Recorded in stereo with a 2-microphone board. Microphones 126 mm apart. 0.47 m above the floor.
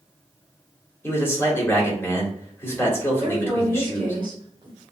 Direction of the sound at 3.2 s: 35° right (ahead or behind).